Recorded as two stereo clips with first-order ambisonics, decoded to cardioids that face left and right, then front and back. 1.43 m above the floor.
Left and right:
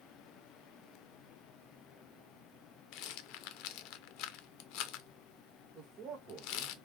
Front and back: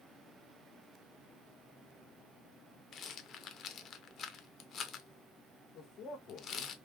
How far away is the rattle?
About 0.5 m.